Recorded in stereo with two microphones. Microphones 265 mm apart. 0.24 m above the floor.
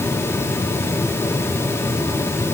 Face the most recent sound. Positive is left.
No sound to turn to.